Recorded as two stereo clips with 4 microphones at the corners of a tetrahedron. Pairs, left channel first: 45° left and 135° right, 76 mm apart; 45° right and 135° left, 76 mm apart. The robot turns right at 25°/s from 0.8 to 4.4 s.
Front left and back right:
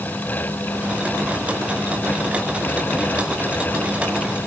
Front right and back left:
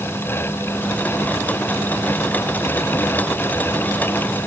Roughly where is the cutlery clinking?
No cutlery clinking in this recording.